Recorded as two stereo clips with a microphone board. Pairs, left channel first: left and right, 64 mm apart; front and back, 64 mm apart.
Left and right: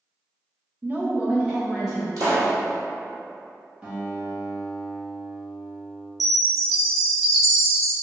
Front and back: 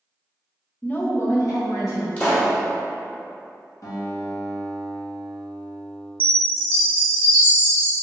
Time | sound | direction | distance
0.8 | a woman speaking | 65° right | 0.6 m
2.2 | a pop | 65° right | 1.3 m
3.8 | a guitar | 20° right | 1.1 m
6.2 | a chime | 10° right | 0.8 m